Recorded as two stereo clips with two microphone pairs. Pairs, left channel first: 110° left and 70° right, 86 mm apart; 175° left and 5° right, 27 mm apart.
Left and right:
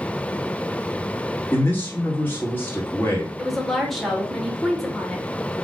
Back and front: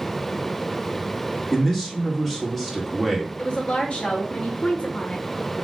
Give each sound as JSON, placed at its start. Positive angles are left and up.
{"t": 1.5, "sound": "a man speaking", "azimuth_deg": 100, "distance_m": 1.4}
{"t": 3.4, "sound": "a woman speaking", "azimuth_deg": -165, "distance_m": 1.4}